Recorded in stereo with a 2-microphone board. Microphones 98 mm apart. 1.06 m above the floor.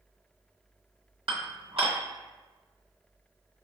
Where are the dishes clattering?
65° right (ahead or behind), 1.0 m.